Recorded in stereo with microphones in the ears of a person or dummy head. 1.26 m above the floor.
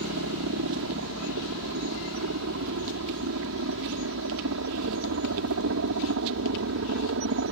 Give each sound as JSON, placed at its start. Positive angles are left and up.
{"t": 0.0, "sound": "a helicopter", "side_deg": -70}